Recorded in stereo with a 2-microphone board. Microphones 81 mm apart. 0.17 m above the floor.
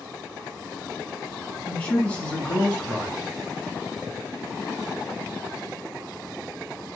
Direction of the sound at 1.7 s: 20° left (ahead or behind).